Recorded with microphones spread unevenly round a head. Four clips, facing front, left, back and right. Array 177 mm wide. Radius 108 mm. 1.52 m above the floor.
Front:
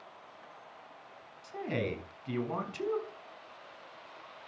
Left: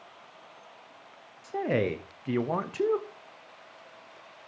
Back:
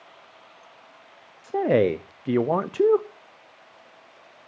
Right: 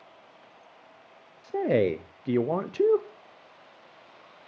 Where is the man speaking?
155° right, 0.6 m.